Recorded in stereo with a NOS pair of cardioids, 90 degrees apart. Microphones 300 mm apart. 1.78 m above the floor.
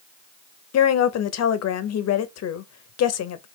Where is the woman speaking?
60° left, 0.8 m.